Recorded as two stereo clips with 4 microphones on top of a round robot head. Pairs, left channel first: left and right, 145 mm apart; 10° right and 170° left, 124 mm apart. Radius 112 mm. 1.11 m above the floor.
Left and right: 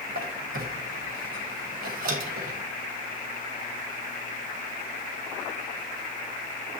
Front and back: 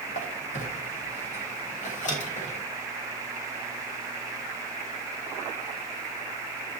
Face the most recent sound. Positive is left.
turn(degrees=-55)